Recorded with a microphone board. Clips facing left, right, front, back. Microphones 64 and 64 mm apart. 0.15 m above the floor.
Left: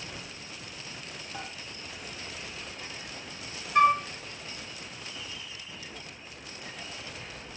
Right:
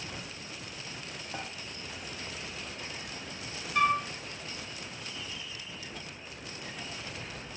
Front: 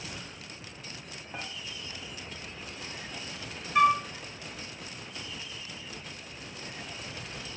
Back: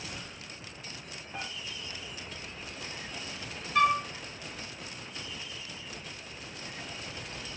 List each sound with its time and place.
1.3 s dishes clattering: 70° right, 2 m
3.8 s a flute: 75° left, 1.4 m